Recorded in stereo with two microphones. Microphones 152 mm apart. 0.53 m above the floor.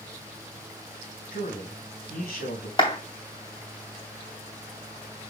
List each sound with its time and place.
1.3 s a man speaking: 80° left, 3.5 m
2.8 s a clap: 35° left (ahead or behind), 2.5 m